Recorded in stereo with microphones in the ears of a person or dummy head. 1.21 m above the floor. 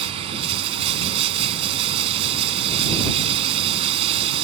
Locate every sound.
0.0 s running water: 30° right (ahead or behind)